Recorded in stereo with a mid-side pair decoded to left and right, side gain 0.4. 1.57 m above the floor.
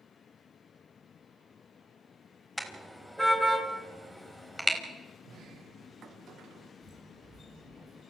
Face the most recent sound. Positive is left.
turn(degrees=-70)